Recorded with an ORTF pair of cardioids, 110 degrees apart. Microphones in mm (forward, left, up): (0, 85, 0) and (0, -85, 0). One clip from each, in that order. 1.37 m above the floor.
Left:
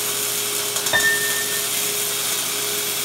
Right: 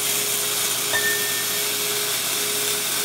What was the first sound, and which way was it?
A piano, 35° left.